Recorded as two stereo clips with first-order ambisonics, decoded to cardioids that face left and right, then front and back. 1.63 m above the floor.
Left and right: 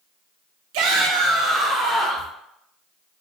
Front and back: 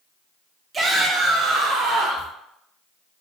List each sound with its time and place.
0.7 s a shout: 105° right, 0.6 m; by 2.3 s 165° right, 1.4 m